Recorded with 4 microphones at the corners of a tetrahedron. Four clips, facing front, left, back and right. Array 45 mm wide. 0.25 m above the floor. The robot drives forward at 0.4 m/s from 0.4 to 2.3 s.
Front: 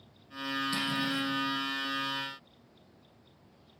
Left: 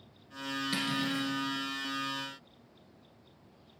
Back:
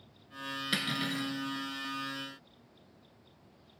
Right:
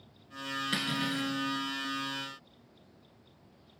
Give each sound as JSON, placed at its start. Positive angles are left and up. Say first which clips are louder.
{"t": 0.7, "sound": "cutlery clinking", "louder": "even, back 1 dB", "azimuth_deg": -155, "distance_m": 2.0}